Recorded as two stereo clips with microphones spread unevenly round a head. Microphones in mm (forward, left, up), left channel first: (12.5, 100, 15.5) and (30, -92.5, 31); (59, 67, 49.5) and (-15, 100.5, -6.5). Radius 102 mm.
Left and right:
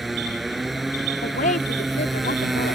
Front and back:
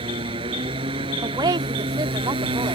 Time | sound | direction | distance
0.0 | a motorcycle | 175° right | ?
1.2 | a woman speaking | 145° left | ?